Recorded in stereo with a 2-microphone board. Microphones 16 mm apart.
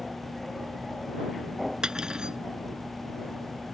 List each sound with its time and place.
1.8 s cutlery clinking: 45° right (ahead or behind)